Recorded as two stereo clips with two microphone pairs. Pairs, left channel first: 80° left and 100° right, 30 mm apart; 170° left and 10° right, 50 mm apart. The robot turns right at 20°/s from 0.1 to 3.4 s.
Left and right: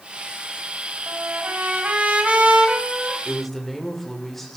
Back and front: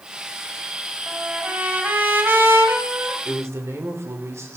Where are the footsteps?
No footsteps in this recording.